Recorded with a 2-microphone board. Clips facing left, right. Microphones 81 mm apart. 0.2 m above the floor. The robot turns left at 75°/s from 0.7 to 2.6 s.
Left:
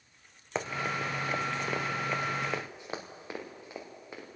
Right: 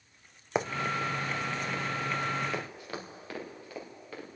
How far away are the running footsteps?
About 0.7 m.